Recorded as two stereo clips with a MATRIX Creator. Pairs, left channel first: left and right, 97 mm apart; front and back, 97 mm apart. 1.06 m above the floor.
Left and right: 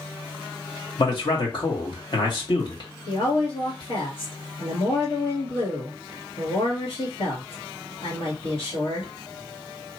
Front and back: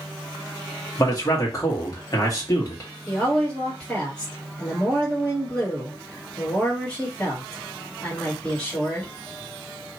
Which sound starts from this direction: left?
A woman speaking, at 3.1 s.